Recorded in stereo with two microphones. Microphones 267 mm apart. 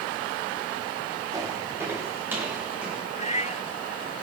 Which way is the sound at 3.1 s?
25° left (ahead or behind).